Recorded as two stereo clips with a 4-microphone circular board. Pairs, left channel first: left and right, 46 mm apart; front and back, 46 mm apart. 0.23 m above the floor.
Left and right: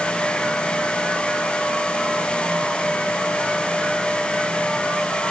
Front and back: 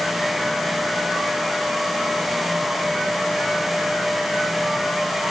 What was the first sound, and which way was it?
Only background noise.